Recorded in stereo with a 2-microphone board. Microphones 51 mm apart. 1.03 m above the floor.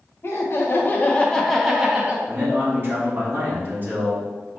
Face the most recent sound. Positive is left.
turn(degrees=-45)  # may be behind; listen again after turning